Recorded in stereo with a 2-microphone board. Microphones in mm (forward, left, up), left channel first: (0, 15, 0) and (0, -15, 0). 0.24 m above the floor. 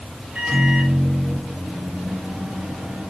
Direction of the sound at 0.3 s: 45° right (ahead or behind).